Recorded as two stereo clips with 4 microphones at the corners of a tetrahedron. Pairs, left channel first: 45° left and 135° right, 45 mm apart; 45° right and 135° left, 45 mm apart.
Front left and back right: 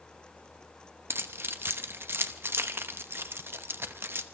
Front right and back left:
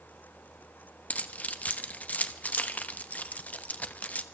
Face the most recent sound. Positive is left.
turn(degrees=-100)